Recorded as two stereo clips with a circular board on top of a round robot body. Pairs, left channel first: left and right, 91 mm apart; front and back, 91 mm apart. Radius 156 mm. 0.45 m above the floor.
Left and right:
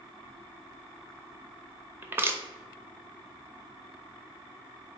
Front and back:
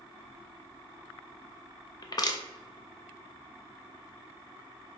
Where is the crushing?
30° right, 0.6 m.